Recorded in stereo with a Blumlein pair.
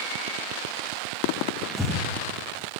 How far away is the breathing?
About 2.5 m.